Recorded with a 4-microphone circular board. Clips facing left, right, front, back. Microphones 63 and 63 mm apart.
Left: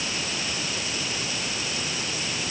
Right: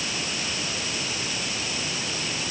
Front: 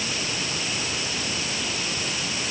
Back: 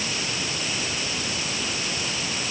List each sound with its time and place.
Only background noise.